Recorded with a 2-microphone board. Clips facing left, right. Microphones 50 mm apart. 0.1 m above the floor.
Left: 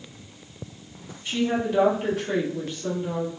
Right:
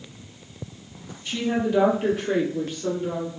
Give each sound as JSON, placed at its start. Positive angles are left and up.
{"t": 1.2, "sound": "a woman speaking", "side_deg": 10, "distance_m": 1.5}